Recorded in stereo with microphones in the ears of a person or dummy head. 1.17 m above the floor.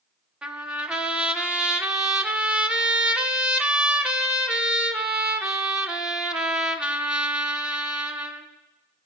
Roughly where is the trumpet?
Centre.